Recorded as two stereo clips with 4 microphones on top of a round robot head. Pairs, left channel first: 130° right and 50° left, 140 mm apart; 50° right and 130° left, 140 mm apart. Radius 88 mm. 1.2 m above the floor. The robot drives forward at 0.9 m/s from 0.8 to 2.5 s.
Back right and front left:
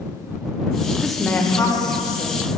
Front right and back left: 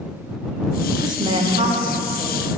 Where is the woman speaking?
130° left, 0.6 m; by 2.6 s 175° left, 1.6 m.